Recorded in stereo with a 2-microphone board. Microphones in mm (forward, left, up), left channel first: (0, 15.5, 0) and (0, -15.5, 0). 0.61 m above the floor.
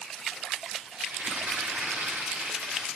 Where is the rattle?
75° right (ahead or behind), 4 m.